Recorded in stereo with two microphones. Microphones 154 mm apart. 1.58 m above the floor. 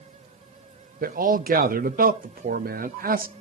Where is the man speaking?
70° right (ahead or behind), 0.7 m.